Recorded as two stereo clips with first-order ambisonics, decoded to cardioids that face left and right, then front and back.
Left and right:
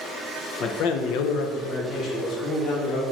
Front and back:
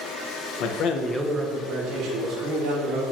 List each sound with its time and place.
0.6 s a man speaking: 30° left, 0.7 m; by 3.0 s 155° left, 2 m